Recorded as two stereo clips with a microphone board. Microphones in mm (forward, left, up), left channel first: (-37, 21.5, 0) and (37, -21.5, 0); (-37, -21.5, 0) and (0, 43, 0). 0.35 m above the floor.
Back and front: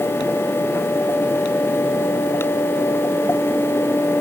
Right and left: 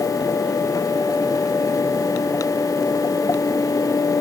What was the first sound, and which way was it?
Only background noise.